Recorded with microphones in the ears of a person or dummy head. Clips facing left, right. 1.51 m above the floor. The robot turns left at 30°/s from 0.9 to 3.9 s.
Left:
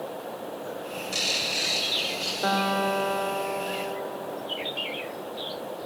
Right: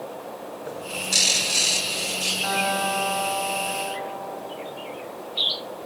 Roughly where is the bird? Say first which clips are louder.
Right 1 dB; right.